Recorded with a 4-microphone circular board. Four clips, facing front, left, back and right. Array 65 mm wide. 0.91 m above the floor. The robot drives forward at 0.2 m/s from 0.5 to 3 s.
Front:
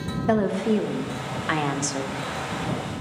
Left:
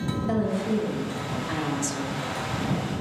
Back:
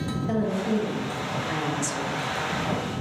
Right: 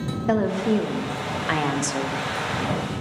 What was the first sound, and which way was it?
A woman speaking, 35° right.